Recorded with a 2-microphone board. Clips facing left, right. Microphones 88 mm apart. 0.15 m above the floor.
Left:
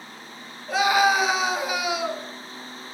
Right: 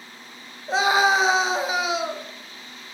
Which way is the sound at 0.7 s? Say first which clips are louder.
Even; 25° right (ahead or behind).